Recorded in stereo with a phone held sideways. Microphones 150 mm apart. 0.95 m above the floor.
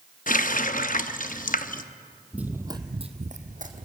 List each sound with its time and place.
0.3 s a running tap: 65° left (ahead or behind), 0.7 m
2.3 s running footsteps: 5° right (ahead or behind), 1.3 m; by 3.9 s 60° right (ahead or behind), 2.0 m